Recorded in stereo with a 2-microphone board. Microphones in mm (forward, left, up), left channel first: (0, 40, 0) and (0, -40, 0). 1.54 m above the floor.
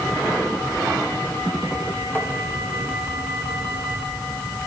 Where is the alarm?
I don't hear an alarm.